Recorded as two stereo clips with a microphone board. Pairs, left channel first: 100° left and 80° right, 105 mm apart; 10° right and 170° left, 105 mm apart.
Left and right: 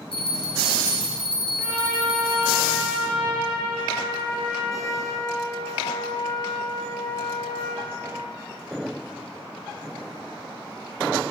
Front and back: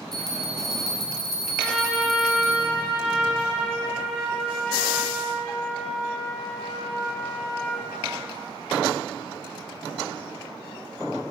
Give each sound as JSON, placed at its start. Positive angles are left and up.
{"t": 0.1, "sound": "a bell", "azimuth_deg": 75, "distance_m": 0.9}
{"t": 1.6, "sound": "a trumpet", "azimuth_deg": 80, "distance_m": 1.7}